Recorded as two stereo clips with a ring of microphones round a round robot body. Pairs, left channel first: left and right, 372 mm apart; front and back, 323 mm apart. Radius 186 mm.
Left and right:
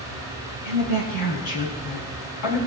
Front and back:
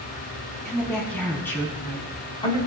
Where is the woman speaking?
90° left, 7.5 m; by 2.6 s 75° left, 6.5 m.